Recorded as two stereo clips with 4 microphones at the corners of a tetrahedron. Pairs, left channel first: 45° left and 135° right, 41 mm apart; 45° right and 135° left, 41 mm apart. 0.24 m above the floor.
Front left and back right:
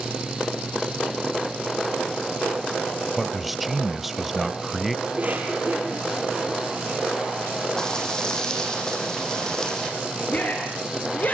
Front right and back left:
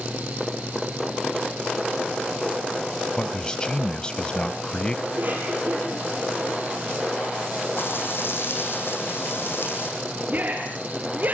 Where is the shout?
95° left, 4.5 m.